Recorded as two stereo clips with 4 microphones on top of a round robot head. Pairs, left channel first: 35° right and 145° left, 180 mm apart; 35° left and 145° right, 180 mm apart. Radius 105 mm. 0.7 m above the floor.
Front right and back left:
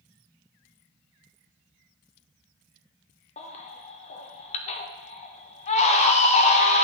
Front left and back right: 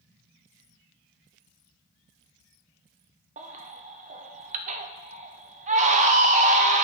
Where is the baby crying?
95° right, 0.5 m.